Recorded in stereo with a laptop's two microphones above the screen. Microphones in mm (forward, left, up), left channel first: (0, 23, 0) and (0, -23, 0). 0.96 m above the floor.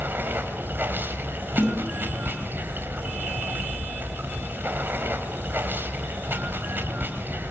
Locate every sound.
0.0 s running water: 50° right (ahead or behind), 3.5 m
1.6 s a snare drum: 40° left (ahead or behind), 8 m